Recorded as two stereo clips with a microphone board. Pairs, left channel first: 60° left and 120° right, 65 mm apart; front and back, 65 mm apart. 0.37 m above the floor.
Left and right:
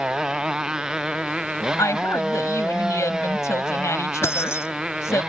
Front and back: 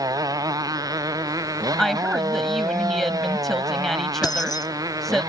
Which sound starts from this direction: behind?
A motorcycle, at 0.0 s.